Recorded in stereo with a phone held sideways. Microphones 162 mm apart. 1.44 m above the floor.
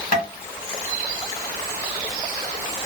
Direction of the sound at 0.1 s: 60° left (ahead or behind).